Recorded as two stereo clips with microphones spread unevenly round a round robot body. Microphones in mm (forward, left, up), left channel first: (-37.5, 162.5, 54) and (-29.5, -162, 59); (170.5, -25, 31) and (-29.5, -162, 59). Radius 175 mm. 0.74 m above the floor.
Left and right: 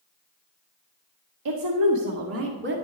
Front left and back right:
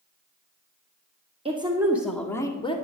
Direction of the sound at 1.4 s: 75° right.